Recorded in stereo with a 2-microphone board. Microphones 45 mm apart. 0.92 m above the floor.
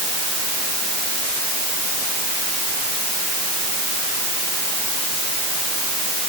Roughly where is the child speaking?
No child speaking in this recording.